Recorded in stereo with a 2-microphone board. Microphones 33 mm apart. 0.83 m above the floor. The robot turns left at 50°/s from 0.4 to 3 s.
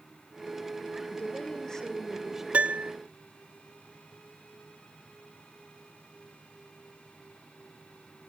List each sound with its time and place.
1.1 s a woman speaking: 50° left, 2.5 m; by 2.4 s 15° right, 2.5 m
2.5 s a piano: 45° right (ahead or behind), 0.5 m; by 2.9 s 65° right (ahead or behind), 0.5 m